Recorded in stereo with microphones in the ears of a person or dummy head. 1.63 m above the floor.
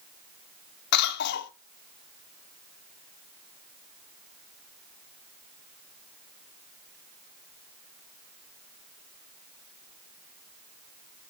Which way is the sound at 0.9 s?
60° left (ahead or behind).